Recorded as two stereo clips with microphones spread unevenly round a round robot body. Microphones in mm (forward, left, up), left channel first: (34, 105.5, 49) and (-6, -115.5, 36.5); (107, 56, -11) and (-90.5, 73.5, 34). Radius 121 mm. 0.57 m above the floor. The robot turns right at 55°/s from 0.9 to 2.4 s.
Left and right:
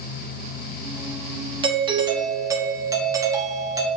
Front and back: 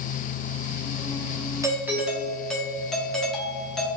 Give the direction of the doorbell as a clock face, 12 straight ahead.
3 o'clock.